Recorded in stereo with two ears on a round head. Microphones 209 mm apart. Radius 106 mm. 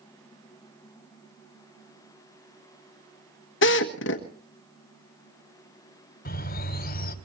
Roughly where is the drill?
Left.